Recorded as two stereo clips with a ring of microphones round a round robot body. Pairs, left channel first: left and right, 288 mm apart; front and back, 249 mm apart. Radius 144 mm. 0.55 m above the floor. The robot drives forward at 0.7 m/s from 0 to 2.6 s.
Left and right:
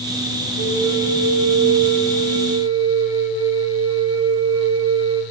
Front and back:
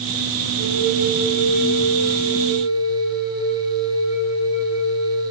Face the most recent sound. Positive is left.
turn(degrees=-100)